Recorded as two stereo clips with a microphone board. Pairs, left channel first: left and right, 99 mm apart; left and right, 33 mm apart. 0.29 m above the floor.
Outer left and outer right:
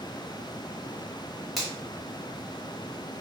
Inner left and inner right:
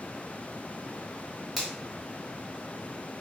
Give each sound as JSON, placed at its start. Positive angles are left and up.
{"t": 1.6, "sound": "a finger snap", "side_deg": 5, "distance_m": 1.5}